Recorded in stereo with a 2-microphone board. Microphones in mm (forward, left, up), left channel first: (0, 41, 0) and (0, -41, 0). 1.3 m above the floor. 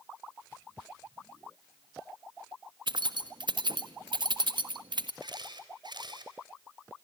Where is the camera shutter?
65° right (ahead or behind), 3.5 m.